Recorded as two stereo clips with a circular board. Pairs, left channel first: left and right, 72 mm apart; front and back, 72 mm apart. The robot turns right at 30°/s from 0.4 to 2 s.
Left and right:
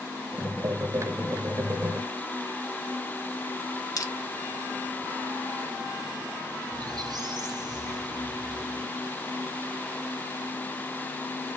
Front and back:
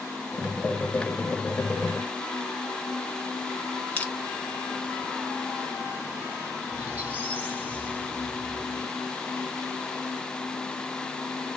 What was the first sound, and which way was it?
Crushing, 70° left.